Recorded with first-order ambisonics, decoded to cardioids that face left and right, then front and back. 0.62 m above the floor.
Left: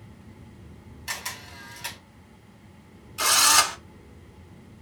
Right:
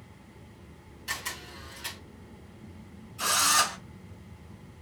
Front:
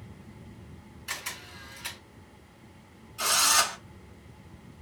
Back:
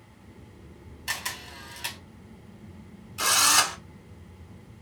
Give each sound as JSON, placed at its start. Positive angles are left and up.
{"t": 1.1, "sound": "a camera shutter", "azimuth_deg": 160, "distance_m": 2.0}
{"t": 3.2, "sound": "a drill", "azimuth_deg": 125, "distance_m": 1.2}